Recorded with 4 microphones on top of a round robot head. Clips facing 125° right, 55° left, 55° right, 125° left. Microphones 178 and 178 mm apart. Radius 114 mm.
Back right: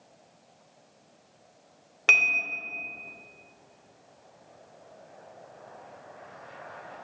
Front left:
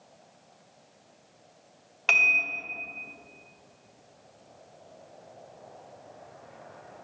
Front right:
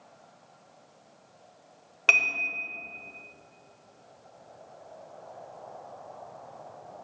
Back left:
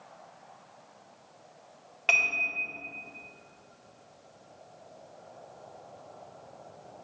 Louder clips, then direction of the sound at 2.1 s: Front left 1 dB, even; 90° right.